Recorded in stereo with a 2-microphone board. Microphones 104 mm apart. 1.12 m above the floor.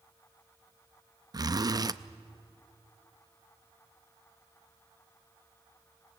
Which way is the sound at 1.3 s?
40° right (ahead or behind).